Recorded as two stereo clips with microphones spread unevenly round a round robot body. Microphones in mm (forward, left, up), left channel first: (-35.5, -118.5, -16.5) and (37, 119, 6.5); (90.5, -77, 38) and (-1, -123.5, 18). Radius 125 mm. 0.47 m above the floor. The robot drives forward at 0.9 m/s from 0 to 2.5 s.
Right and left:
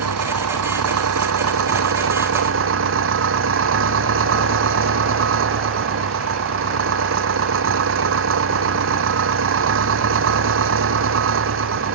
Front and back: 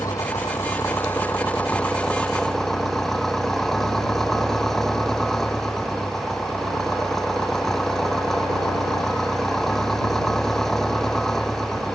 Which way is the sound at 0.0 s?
105° left.